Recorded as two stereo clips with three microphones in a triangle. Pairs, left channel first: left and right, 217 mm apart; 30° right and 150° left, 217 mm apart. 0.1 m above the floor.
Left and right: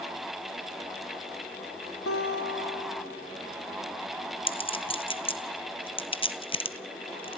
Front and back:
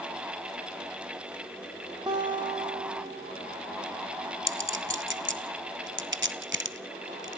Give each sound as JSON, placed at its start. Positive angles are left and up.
{"t": 2.1, "sound": "a guitar", "azimuth_deg": 80, "distance_m": 6.5}
{"t": 4.5, "sound": "a clink", "azimuth_deg": 150, "distance_m": 1.1}